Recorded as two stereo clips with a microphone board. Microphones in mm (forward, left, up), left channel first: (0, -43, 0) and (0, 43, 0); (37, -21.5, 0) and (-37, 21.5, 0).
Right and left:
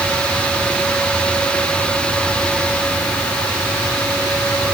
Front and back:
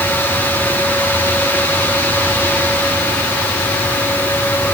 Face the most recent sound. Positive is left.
No sound to turn to.